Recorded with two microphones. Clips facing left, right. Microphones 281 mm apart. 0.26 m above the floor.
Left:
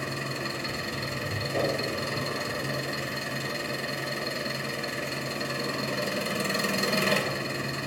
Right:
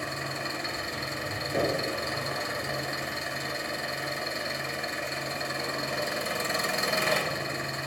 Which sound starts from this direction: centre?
Knocking, at 1.5 s.